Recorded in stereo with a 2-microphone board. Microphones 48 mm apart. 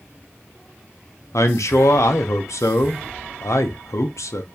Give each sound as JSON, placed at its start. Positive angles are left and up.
{"t": 1.3, "sound": "a man speaking", "side_deg": 75, "distance_m": 0.7}